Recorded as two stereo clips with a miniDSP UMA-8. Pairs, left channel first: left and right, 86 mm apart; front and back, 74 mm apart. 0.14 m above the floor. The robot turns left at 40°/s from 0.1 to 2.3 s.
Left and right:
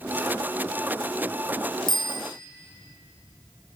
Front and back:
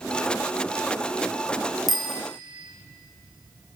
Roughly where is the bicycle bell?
Left.